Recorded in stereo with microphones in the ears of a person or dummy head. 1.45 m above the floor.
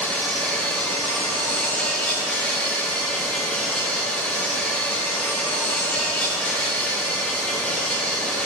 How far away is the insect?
About 1.4 m.